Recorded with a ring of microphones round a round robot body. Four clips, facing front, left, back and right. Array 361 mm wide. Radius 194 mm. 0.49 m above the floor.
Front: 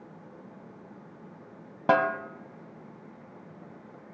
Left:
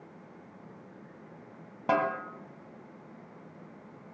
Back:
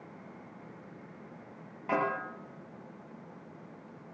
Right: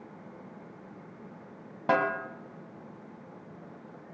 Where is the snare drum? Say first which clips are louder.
Right 1 dB, front 7 dB; 5° right, 1.7 m.